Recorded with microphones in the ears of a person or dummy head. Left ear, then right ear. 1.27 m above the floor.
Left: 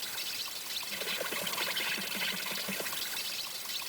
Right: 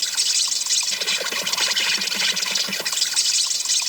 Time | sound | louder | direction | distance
0.0 | an insect | right 16 dB | 80° right | ?